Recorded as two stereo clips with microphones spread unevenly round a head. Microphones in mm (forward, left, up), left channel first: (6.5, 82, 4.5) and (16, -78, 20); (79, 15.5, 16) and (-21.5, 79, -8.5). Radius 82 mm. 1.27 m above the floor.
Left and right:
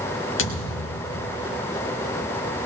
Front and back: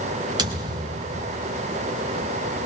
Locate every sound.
0.4 s a thud: 90° left, 1.7 m